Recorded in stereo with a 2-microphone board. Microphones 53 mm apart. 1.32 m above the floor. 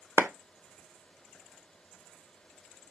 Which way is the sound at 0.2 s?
60° right (ahead or behind).